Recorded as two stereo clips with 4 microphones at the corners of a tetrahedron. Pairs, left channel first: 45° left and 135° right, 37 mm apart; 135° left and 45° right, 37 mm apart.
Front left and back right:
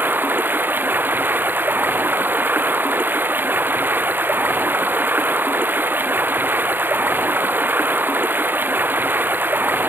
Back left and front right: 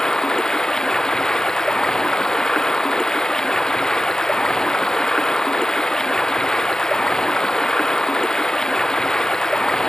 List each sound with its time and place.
0.0 s running water: 155° right